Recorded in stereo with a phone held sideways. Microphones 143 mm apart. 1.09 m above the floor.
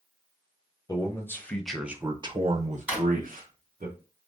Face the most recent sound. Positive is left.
turn(degrees=-10)  # may be behind; listen again after turning